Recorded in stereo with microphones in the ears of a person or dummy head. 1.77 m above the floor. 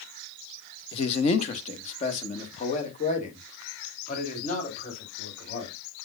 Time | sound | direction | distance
0.9 | a man speaking | 35° left (ahead or behind) | 0.9 m